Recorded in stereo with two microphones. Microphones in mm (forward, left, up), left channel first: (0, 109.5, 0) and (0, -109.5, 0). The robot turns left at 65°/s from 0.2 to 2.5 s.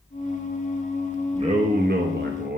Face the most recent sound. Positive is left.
turn(degrees=-110)